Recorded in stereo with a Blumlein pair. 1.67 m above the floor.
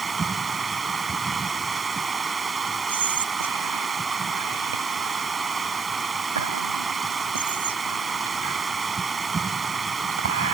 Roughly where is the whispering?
Right.